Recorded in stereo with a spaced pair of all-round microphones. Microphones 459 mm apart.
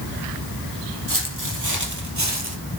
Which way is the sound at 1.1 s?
45° right (ahead or behind).